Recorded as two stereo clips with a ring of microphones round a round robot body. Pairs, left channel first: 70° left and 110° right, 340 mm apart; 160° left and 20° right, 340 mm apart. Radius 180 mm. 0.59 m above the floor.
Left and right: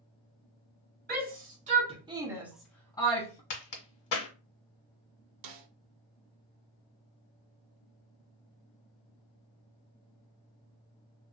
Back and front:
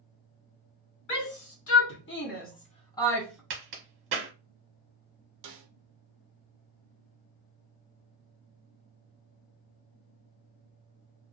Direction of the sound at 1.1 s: 170° right.